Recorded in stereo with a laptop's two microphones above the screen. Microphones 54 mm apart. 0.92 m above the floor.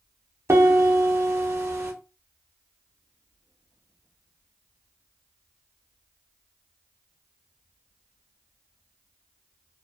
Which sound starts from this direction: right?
A piano, at 0.5 s.